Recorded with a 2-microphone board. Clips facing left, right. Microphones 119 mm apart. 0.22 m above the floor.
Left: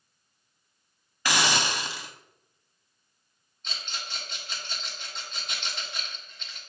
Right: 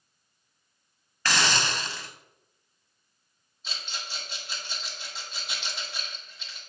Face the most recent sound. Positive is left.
turn(degrees=-5)  # may be behind; listen again after turning